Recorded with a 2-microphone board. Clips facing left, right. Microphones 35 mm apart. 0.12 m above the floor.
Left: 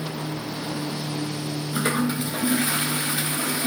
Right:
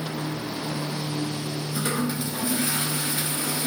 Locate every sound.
1.7 s a toilet flushing: 40° left (ahead or behind), 0.9 m